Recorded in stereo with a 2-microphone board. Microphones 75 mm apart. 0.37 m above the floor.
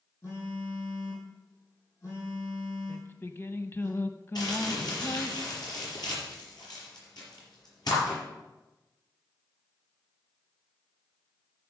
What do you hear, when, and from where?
0.2 s a phone buzzing: 45° left (ahead or behind), 5 m
2.9 s singing: 30° left (ahead or behind), 0.5 m
4.3 s crumpling: 65° left (ahead or behind), 4.5 m